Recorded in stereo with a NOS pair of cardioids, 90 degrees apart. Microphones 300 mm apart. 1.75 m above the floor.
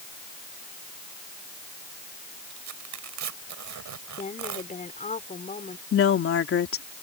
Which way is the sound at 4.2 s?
25° left.